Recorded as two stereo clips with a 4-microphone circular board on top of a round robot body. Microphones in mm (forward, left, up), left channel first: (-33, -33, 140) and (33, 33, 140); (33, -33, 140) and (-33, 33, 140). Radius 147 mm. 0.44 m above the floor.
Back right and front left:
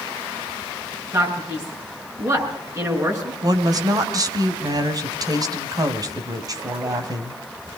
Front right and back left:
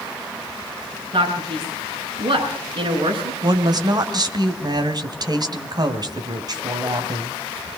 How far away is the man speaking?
About 8 m.